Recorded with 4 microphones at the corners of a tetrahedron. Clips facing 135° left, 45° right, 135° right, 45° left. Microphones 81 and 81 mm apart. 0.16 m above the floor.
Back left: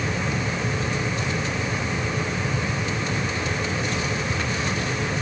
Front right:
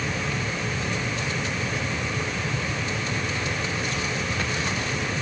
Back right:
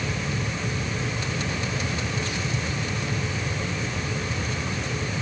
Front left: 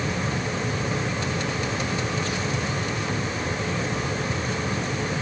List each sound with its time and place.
Only background noise.